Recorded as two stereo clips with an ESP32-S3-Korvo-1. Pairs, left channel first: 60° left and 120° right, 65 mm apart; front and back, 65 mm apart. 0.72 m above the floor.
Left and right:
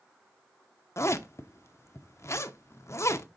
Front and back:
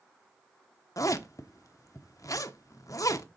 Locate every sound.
1.0 s a zipper: 20° left, 0.6 m